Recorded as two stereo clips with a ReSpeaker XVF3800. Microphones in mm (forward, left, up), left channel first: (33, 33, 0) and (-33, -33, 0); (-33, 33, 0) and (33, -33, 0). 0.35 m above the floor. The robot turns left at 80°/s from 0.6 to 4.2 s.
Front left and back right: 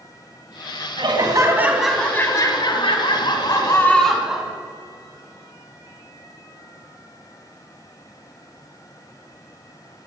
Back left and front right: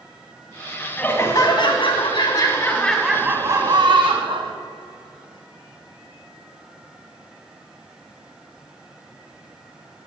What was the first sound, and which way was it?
Laughter, 150° right.